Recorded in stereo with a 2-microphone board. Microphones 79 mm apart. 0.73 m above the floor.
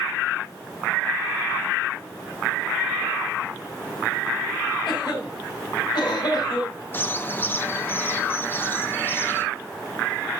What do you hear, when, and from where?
4.9 s a cough: 60° left (ahead or behind), 5 m
6.9 s a bird: 25° left (ahead or behind), 0.9 m